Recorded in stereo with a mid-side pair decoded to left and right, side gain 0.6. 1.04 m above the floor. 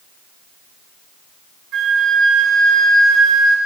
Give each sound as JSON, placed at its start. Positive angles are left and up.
{"t": 1.7, "sound": "a flute", "azimuth_deg": -65, "distance_m": 1.1}